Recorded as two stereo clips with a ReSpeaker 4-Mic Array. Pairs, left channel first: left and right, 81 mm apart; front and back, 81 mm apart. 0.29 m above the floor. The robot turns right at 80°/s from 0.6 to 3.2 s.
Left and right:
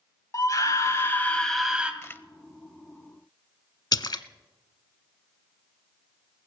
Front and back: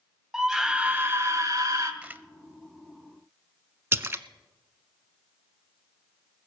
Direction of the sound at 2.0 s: 120° left.